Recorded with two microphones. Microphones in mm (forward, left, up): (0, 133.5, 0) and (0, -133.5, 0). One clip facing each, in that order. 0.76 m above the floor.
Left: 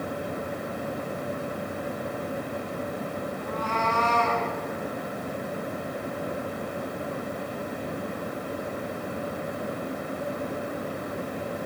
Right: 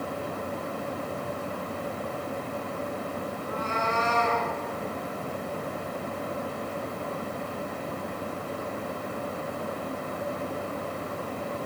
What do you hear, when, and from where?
3.4 s a cat meowing: 25° right (ahead or behind), 3.5 m; by 4.5 s 20° right (ahead or behind), 4 m